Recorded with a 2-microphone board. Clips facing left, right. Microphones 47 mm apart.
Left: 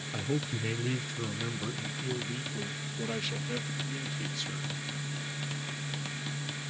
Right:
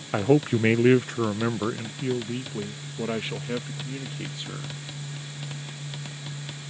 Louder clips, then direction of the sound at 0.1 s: Right 13 dB; 50° right (ahead or behind).